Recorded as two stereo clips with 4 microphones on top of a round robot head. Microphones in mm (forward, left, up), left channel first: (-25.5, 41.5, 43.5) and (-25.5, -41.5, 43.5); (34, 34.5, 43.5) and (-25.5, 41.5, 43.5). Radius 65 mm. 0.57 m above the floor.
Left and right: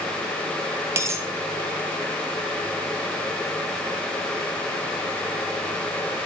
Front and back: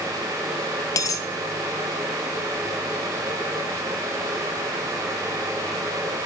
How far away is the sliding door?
No sliding door in this recording.